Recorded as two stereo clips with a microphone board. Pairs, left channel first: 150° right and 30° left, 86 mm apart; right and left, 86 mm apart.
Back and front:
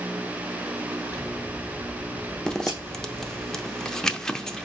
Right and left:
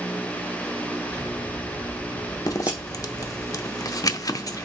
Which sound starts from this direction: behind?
Scissors, at 1.1 s.